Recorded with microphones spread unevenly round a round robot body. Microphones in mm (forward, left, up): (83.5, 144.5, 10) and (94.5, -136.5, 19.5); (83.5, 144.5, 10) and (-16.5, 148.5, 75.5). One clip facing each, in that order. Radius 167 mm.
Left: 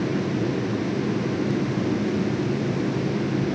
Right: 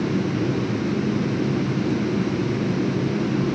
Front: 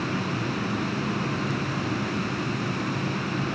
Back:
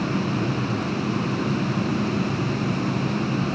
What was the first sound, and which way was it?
Only background noise.